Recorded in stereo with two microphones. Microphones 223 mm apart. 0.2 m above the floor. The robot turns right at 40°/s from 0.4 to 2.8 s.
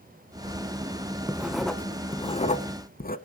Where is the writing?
15° right, 0.8 m; by 3.2 s 50° left, 0.8 m.